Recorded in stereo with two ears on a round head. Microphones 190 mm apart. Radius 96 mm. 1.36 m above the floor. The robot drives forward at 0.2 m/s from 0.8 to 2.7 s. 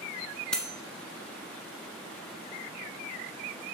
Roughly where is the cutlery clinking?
Centre.